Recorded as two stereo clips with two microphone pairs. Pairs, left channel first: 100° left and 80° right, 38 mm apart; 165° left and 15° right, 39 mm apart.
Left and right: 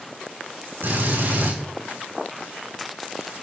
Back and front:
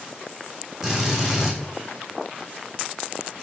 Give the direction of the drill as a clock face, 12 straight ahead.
3 o'clock.